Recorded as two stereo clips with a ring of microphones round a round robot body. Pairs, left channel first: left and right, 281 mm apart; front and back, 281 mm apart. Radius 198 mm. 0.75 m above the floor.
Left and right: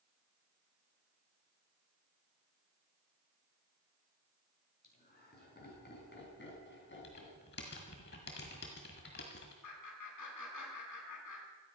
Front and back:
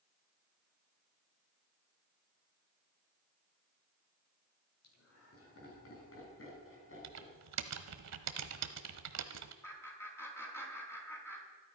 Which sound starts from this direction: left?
Laughter, at 9.6 s.